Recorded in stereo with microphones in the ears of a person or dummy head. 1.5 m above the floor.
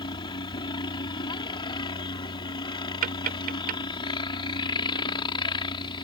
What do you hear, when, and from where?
0.0 s a helicopter: 20° left (ahead or behind)
3.0 s tapping: 50° right (ahead or behind)